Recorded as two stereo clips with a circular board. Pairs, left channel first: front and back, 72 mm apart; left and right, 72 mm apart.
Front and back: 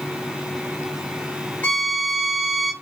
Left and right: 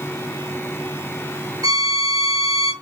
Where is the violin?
65° right, 5 m.